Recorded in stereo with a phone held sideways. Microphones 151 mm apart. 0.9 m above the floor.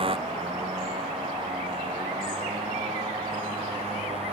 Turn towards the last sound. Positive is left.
turn(degrees=-40)  # may be behind; listen again after turning